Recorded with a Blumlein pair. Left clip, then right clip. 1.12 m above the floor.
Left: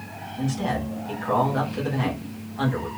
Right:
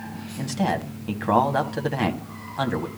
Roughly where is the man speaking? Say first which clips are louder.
Right 2 dB; ahead right.